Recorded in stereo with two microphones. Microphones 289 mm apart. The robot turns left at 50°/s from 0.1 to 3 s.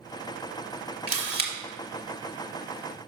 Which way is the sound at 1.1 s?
50° right (ahead or behind).